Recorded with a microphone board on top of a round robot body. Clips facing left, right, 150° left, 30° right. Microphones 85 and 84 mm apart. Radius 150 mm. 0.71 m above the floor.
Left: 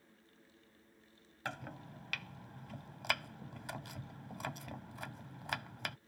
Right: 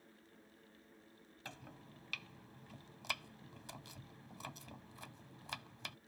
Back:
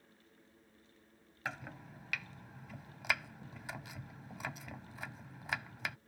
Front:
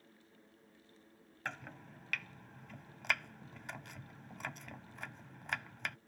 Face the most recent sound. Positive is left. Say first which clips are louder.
# left 10 dB, back 1 dB
turn(degrees=65)